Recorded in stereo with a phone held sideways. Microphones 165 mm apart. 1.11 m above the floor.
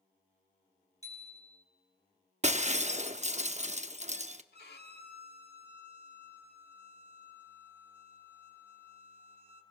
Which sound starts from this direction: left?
A violin, at 4.5 s.